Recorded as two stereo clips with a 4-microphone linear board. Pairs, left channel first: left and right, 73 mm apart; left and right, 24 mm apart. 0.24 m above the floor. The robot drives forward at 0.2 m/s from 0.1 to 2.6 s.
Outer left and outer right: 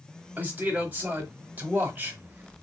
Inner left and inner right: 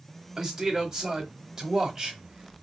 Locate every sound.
0.4 s a man speaking: 25° right (ahead or behind), 1.0 m